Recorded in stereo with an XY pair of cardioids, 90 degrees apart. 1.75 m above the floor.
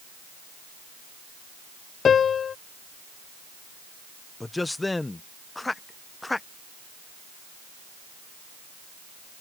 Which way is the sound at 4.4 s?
20° left.